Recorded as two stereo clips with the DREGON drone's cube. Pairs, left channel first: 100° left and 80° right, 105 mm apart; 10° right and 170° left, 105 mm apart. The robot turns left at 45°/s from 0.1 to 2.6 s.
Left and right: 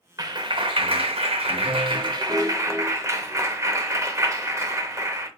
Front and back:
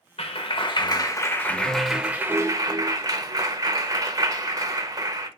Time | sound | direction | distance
0.2 | a clap | 30° right | 0.7 m